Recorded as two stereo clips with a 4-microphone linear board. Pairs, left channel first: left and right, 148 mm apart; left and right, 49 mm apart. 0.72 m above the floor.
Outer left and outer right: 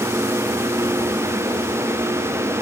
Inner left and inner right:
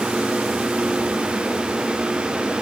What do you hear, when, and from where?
Only background noise.